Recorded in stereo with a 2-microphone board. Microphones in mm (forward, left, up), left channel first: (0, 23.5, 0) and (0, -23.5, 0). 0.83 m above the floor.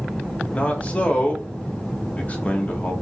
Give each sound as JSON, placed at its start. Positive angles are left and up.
{"t": 0.5, "sound": "a man speaking", "side_deg": 30, "distance_m": 0.9}